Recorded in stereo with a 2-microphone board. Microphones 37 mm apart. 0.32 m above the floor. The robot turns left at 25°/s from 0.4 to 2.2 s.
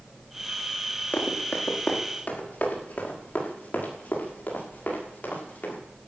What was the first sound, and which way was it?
Running footsteps, 65° left (ahead or behind).